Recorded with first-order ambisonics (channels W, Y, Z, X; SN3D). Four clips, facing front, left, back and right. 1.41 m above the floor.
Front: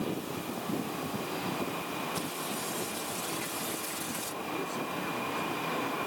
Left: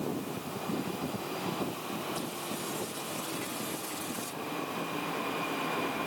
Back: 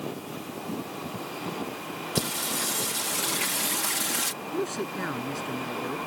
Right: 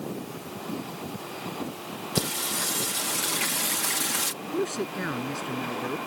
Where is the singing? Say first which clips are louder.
Right 8 dB, back 6 dB; 130° right.